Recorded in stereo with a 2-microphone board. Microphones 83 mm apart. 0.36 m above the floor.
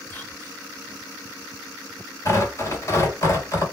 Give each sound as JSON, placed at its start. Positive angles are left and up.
{"t": 0.1, "sound": "whispering", "side_deg": 25, "distance_m": 1.4}
{"t": 2.2, "sound": "tearing paper", "side_deg": 40, "distance_m": 2.5}